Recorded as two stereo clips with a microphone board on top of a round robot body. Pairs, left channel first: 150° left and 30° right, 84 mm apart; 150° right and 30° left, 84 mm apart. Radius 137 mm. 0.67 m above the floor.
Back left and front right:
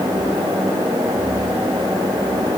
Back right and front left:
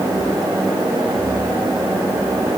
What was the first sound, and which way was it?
Only background noise.